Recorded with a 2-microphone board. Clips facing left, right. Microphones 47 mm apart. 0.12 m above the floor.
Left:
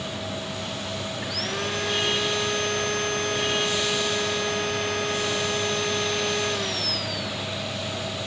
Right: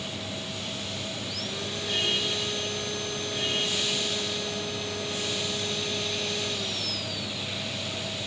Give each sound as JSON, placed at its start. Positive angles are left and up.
{"t": 1.2, "sound": "sawing", "side_deg": 55}